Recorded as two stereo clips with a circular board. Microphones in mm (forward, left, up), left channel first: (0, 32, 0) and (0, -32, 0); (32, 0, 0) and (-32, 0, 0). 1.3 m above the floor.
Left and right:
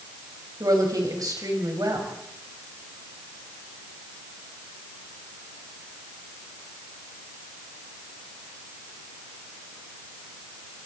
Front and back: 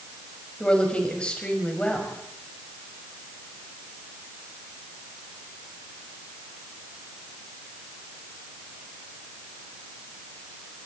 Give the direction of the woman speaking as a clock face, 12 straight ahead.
2 o'clock.